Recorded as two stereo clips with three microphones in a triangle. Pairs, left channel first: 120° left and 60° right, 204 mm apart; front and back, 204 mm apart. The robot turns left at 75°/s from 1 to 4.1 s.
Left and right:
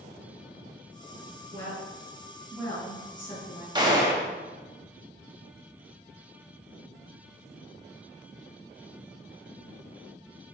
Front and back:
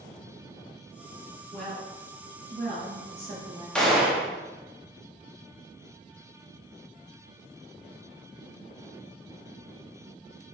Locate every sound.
1.5 s a woman speaking: 80° right, 1.8 m; by 3.6 s 120° left, 1.8 m
3.8 s a gunshot: 80° right, 0.6 m; by 4.3 s 105° right, 0.6 m